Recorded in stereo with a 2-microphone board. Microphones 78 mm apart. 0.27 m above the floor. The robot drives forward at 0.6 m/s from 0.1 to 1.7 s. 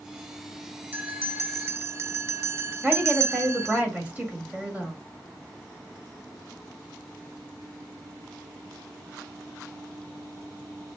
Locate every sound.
0.9 s a bell: 25° right (ahead or behind), 0.6 m; by 3.8 s 35° right (ahead or behind), 0.5 m
2.8 s a woman speaking: 20° right (ahead or behind), 1.5 m